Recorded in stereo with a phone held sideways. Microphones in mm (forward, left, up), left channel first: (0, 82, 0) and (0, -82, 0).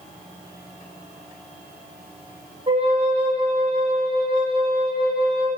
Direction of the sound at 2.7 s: 30° right (ahead or behind).